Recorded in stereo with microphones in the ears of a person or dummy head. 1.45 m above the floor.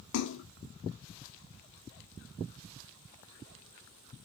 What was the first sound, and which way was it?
A splash, 65° left (ahead or behind).